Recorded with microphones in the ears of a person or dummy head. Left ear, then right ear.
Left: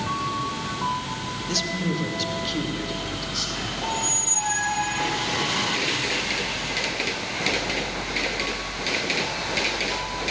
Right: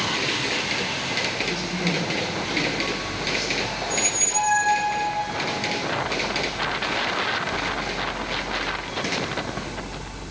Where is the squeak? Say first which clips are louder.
Right 1 dB; 15° right (ahead or behind), 1.3 m.